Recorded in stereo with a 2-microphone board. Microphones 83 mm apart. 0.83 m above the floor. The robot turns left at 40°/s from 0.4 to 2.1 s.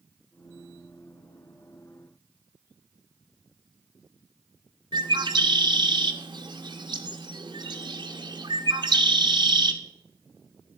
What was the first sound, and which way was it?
A bird, 65° right (ahead or behind).